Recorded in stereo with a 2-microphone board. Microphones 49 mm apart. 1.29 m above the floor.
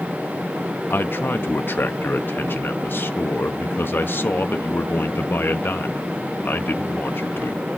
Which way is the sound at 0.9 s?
45° left (ahead or behind).